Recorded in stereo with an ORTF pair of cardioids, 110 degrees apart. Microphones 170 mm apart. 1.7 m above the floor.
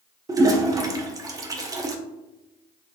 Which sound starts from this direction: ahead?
A toilet flushing, at 0.3 s.